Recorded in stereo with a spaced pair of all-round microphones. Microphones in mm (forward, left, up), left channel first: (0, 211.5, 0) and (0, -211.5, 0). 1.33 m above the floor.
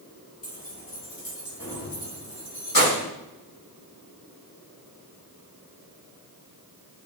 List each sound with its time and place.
0.4 s keys jangling: 75° left (ahead or behind), 3 m; by 3.1 s 55° left (ahead or behind), 4 m